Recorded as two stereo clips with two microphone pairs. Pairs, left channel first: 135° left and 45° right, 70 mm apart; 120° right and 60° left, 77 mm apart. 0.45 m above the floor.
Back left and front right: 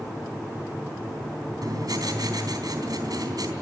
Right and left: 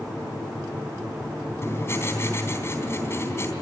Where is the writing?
65° right, 3.5 m.